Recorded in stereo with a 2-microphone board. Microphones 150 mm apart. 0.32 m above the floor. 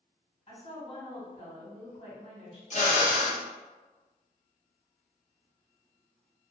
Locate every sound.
0.5 s a woman speaking: 45° left (ahead or behind), 1.9 m
2.7 s a drill: 50° left (ahead or behind), 0.6 m